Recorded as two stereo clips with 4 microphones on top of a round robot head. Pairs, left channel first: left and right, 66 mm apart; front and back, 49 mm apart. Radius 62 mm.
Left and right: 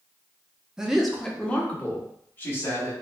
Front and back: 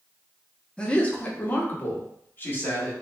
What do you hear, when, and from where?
0.8 s a man speaking: 30° right, 0.6 m; by 2.9 s 40° left, 1.3 m